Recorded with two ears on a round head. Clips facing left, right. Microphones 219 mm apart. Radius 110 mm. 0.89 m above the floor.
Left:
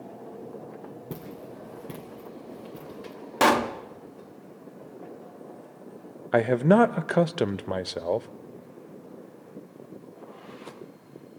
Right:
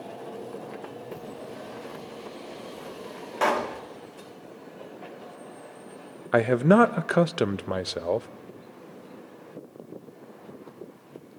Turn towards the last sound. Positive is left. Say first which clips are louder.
# right 1 dB
turn(degrees=-5)  # may be behind; listen again after turning